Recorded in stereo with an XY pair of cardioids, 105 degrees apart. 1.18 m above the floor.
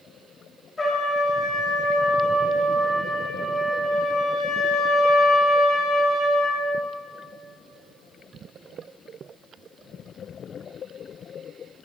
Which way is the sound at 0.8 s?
20° left.